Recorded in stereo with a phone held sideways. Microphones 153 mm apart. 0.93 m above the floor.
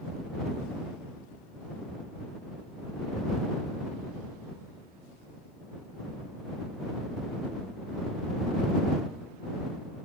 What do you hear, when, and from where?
Only background noise.